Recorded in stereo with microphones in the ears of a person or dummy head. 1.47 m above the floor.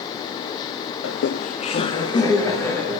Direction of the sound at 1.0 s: 85° left.